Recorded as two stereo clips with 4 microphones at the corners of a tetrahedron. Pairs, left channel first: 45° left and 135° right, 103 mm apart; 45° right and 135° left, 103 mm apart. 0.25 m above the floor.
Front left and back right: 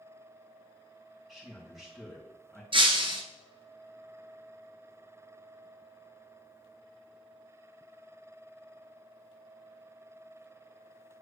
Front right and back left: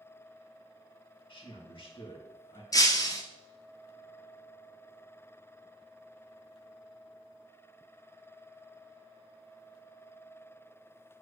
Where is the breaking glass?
100° right, 1.2 m.